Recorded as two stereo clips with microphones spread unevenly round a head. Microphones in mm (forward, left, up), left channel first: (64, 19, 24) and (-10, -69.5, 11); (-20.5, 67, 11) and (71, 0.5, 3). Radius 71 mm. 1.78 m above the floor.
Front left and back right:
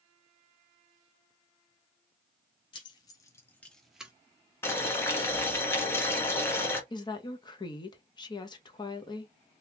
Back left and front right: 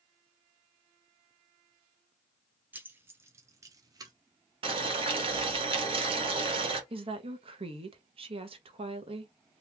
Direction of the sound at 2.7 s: 40° left.